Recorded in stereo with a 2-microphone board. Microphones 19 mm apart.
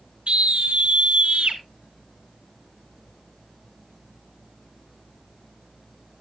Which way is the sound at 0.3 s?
70° right (ahead or behind).